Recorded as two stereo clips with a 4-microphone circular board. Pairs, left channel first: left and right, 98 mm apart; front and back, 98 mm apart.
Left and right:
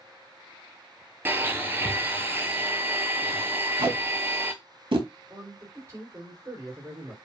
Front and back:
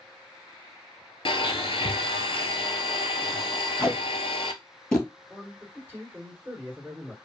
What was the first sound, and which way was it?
A blender, 20° right.